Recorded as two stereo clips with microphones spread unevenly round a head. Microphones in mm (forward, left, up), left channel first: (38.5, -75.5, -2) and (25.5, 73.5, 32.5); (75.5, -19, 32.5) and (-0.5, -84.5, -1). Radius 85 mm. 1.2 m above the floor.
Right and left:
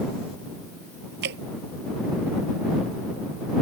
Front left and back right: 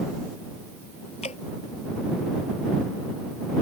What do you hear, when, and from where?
1.2 s dripping: 95° left